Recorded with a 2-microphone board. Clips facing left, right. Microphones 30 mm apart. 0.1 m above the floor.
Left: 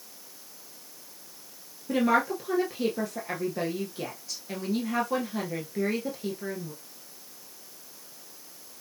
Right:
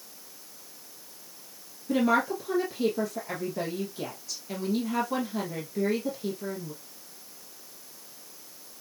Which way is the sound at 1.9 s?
20° left (ahead or behind).